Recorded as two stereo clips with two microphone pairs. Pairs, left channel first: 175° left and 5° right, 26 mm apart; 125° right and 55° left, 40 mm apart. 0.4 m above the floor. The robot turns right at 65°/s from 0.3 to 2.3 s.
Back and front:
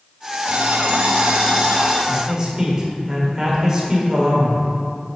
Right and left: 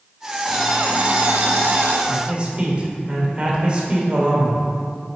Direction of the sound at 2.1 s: 25° left.